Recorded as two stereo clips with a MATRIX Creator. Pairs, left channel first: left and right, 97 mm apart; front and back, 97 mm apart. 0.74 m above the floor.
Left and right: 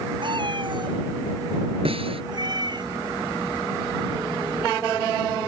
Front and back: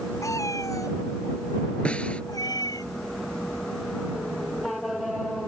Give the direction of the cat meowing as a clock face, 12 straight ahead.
2 o'clock.